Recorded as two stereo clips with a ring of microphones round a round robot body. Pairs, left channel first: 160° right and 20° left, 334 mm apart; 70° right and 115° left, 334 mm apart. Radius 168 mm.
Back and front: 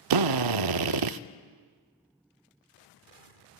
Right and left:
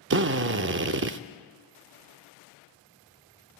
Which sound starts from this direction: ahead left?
A drill, at 0.1 s.